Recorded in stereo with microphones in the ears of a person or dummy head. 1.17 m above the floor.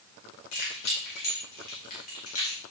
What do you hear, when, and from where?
0.5 s keys jangling: 65° left (ahead or behind), 3 m; by 2.6 s 30° left (ahead or behind), 1.8 m